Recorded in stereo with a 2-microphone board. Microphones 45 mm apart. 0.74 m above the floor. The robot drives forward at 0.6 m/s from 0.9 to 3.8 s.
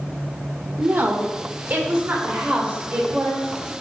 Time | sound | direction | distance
0.8 | a woman speaking | 50° right (ahead or behind) | 1.8 m